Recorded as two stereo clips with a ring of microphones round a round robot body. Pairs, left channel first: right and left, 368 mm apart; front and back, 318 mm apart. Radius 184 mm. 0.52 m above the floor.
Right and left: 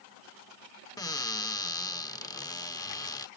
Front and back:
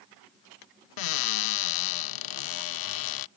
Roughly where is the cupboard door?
Ahead.